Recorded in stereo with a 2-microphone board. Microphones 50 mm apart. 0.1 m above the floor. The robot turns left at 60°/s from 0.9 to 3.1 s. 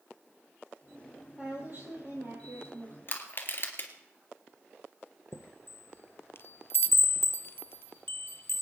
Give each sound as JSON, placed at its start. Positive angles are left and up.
{"t": 1.4, "sound": "a woman speaking", "azimuth_deg": -25, "distance_m": 3.5}
{"t": 3.1, "sound": "crushing", "side_deg": 45, "distance_m": 2.0}
{"t": 5.3, "sound": "a chime", "side_deg": 50, "distance_m": 0.5}